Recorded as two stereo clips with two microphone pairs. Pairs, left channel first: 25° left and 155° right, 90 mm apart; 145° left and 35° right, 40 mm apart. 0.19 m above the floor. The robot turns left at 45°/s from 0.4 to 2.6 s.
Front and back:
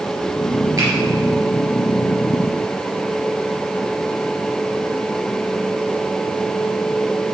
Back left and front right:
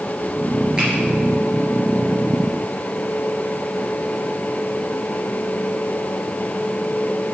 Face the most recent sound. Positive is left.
turn(degrees=175)